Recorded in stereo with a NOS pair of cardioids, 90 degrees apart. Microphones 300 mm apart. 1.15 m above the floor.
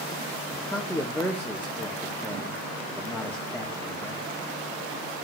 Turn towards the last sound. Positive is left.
turn(degrees=5)